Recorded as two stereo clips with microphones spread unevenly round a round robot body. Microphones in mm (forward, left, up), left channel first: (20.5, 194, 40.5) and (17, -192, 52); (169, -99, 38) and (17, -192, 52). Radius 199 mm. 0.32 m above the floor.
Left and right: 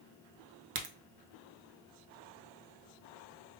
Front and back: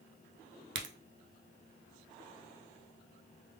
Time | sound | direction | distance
0.8 | a crack | 150° right | 0.8 m